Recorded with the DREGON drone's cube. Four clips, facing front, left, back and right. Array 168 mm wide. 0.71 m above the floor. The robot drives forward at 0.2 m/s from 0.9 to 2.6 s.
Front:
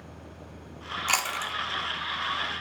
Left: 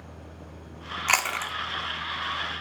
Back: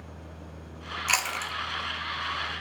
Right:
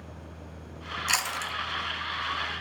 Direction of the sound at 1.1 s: 75° left.